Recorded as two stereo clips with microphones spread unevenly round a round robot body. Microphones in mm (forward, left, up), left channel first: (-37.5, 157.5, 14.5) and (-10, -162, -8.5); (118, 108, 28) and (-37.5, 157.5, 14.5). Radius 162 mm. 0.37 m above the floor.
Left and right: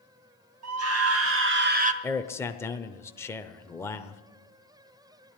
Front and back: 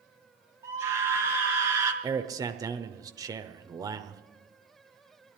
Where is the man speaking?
175° left, 0.8 m.